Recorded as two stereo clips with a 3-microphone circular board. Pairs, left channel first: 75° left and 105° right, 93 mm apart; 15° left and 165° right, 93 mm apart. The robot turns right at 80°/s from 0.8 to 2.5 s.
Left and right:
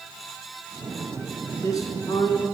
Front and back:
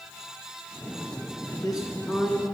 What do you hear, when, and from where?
1.5 s a man speaking: 20° left, 1.7 m; by 2.5 s 95° left, 1.7 m